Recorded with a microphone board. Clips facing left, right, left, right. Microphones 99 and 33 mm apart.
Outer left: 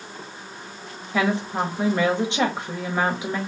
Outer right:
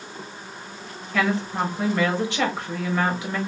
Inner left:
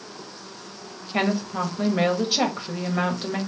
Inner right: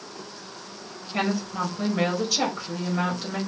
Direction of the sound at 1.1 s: 20° left (ahead or behind).